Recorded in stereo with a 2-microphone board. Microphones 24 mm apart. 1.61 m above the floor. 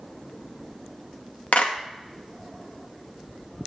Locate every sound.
1.5 s a clap: 70° left (ahead or behind), 1.6 m